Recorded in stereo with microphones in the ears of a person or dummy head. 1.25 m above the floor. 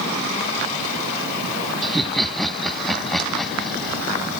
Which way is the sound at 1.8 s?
5° left (ahead or behind).